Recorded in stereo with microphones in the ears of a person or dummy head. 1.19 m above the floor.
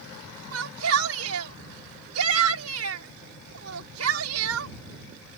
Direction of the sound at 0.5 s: 80° right.